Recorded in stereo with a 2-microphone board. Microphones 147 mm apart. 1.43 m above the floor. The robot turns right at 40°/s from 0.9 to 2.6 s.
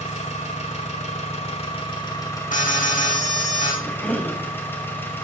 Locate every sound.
0.0 s an engine running: 90° left, 1.9 m; by 5.2 s 160° left, 1.9 m
2.5 s an alarm: 75° left (ahead or behind), 2.5 m; by 3.7 s 70° left (ahead or behind), 2.5 m
3.8 s a cough: 10° left (ahead or behind), 1.5 m